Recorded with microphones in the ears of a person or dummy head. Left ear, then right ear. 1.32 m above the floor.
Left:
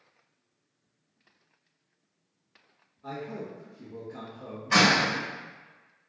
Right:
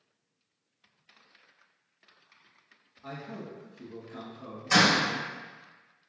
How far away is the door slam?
About 1.5 m.